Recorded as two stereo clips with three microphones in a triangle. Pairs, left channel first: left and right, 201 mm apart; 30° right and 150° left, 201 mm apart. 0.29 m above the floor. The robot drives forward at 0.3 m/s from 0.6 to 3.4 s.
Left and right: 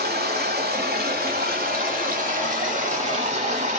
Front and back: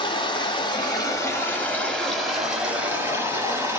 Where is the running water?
90° right, 1.1 m; by 3.8 s 135° right, 1.4 m.